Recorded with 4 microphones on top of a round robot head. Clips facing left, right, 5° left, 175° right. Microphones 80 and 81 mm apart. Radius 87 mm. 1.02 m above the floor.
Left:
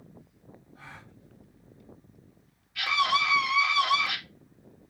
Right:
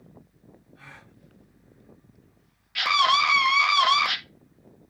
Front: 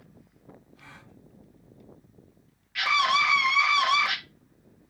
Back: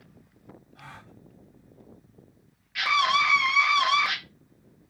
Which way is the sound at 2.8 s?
90° right.